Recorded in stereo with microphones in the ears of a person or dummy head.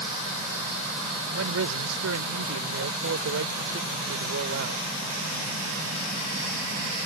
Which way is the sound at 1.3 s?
85° right.